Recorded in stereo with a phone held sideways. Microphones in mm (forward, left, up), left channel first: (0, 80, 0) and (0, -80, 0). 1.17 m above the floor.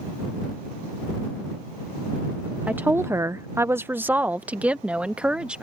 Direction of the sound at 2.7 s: 10° right (ahead or behind).